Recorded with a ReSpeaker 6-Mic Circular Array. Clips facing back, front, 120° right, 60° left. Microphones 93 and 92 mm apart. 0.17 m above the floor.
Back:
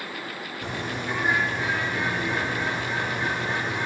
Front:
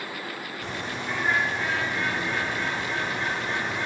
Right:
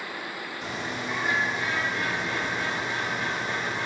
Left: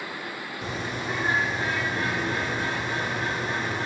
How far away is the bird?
About 3.5 m.